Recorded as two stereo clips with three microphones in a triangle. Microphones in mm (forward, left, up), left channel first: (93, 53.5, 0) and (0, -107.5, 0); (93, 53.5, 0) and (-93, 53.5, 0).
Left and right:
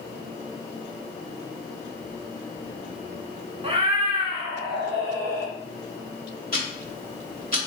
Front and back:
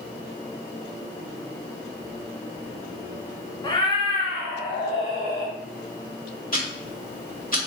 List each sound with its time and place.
3.6 s a cat meowing: 60° right, 0.5 m; by 5.5 s 50° right, 1.7 m
6.5 s ticking: 30° left, 1.0 m